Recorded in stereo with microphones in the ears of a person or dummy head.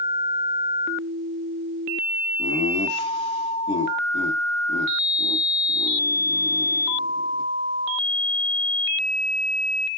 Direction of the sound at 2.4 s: 30° left (ahead or behind).